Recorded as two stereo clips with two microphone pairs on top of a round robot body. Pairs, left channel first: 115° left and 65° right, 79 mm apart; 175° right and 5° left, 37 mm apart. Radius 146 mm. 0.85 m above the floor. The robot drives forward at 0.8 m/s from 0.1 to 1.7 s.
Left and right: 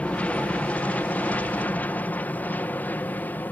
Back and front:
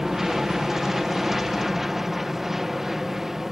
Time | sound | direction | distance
0.0 | an aircraft | 75° left | ?